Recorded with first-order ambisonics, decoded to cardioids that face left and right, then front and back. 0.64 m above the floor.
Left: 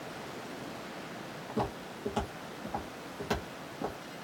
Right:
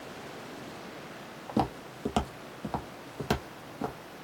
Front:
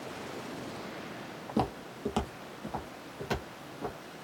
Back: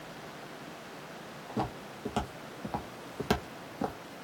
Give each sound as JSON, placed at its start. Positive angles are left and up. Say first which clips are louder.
{"t": 1.5, "sound": "footsteps", "louder": "right 4 dB, front 3 dB", "azimuth_deg": -50, "distance_m": 0.9}